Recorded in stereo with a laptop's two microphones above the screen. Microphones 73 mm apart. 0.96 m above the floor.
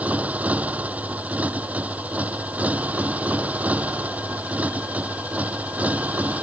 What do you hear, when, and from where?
0.0 s a motorcycle: 20° right (ahead or behind)